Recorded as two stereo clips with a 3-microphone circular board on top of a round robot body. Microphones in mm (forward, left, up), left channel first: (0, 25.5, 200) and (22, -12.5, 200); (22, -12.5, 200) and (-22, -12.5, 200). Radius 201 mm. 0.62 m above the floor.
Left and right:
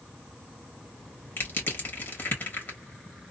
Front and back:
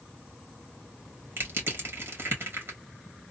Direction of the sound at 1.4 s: 150° left.